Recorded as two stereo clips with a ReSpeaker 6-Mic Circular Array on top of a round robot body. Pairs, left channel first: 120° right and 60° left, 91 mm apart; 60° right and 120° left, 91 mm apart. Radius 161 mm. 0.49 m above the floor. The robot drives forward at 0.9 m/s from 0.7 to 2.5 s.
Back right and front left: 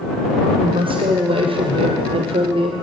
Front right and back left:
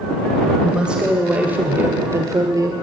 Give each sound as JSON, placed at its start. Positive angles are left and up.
{"t": 0.6, "sound": "a woman speaking", "azimuth_deg": 40, "distance_m": 3.0}